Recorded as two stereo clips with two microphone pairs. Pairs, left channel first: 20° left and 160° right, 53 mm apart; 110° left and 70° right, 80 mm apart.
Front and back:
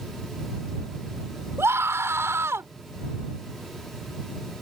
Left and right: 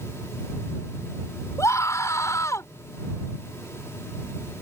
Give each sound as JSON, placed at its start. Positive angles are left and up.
{"t": 1.6, "sound": "a scream", "azimuth_deg": 160}